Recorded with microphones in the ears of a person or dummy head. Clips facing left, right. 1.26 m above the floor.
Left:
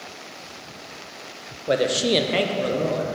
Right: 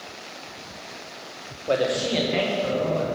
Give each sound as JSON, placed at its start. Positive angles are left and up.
{"t": 1.7, "sound": "a man speaking", "side_deg": 10, "distance_m": 0.5}